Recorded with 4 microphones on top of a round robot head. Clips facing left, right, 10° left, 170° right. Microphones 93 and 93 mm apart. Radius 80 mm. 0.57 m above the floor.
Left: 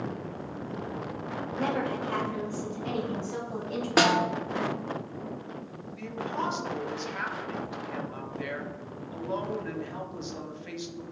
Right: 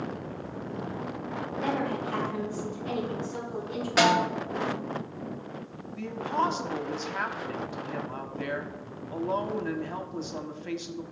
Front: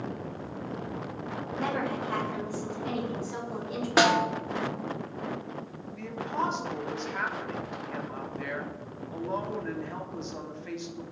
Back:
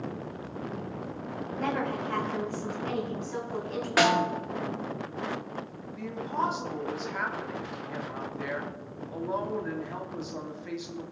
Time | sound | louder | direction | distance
1.6 | a woman speaking | even, back 1 dB | 90° left | 3 m
4.0 | a snare drum | right 1 dB, front 1 dB | 70° left | 2 m
6.0 | a woman speaking | right 4 dB, back 1 dB | 90° right | 1.4 m